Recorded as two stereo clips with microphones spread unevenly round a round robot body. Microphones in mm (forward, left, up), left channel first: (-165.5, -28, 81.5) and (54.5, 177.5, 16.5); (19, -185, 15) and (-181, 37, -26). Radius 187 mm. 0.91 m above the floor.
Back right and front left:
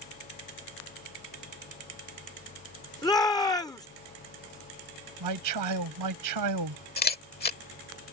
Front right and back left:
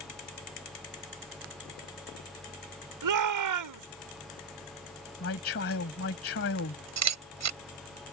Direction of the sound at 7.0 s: 160° left.